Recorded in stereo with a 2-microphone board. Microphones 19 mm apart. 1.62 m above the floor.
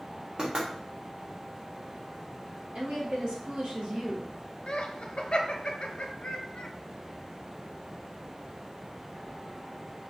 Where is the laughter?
55° left (ahead or behind), 0.7 m.